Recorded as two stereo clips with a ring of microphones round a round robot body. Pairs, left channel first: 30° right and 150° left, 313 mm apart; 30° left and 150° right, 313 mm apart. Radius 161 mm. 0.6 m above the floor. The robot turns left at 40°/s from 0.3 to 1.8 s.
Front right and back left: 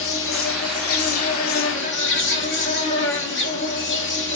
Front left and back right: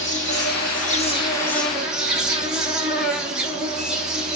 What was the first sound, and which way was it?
An insect, 5° right.